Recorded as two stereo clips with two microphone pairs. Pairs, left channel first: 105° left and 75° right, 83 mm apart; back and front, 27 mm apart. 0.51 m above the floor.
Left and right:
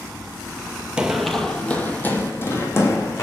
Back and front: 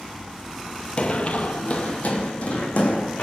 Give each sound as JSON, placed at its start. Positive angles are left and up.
{"t": 1.0, "sound": "running footsteps", "azimuth_deg": -150, "distance_m": 0.7}